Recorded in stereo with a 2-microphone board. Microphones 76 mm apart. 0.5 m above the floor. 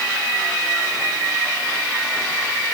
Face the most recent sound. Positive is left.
No sound to turn to.